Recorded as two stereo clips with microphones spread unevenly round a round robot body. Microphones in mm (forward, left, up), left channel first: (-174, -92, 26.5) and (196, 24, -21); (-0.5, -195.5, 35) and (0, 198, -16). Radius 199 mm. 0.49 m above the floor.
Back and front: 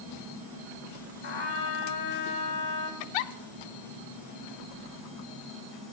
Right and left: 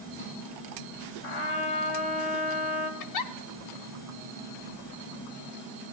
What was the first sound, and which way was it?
A trumpet, 95° right.